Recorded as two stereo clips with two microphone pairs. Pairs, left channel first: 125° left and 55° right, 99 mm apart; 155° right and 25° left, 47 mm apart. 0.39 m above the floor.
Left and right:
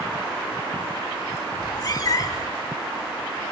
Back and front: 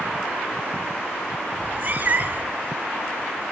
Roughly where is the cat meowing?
Left.